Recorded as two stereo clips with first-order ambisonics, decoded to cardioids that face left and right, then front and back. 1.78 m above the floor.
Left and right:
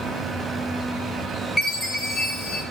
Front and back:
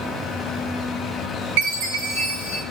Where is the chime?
Straight behind, 6 m.